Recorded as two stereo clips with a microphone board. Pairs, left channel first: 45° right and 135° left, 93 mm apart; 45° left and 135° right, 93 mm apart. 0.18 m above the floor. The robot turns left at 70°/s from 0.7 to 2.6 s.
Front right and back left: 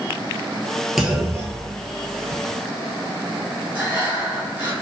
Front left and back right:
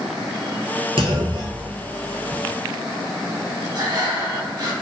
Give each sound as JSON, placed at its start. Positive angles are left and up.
{"t": 1.0, "sound": "a clunk", "azimuth_deg": -140, "distance_m": 0.7}
{"t": 3.8, "sound": "breathing", "azimuth_deg": -165, "distance_m": 1.5}